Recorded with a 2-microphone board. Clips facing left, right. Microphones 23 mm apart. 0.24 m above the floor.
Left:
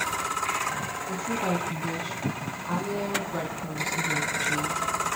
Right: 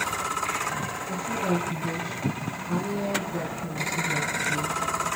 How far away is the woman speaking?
About 2.5 m.